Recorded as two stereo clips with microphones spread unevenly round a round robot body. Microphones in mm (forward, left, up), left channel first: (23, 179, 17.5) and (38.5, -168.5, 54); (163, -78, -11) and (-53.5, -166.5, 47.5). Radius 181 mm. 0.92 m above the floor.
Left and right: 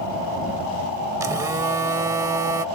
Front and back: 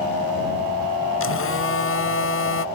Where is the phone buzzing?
5° right.